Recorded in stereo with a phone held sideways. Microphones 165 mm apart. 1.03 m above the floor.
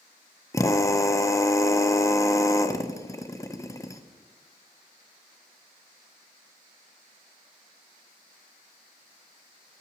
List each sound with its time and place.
0.5 s a drill: 20° left (ahead or behind), 0.5 m